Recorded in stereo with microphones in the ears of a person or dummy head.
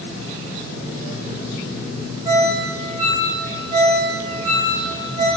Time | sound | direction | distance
2.2 | a ringtone | 20° right (ahead or behind) | 5 m